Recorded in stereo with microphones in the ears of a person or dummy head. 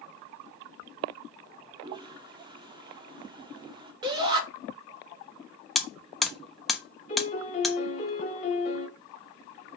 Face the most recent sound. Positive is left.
turn(degrees=35)  # may be behind; listen again after turning